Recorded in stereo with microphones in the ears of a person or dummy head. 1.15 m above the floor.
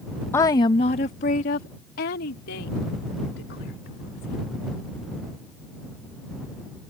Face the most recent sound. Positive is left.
turn(degrees=70)  # may be behind; listen again after turning